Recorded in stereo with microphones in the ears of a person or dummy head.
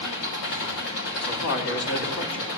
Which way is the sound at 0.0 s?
75° left (ahead or behind).